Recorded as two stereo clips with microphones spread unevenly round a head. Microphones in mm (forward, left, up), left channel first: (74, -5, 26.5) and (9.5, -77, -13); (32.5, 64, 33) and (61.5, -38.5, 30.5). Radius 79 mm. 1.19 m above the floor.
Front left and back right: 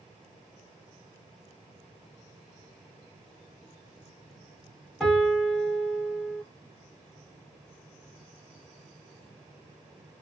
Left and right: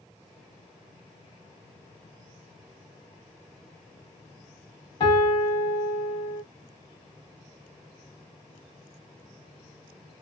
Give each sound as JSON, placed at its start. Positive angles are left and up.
{"t": 5.0, "sound": "a piano", "azimuth_deg": 150, "distance_m": 1.0}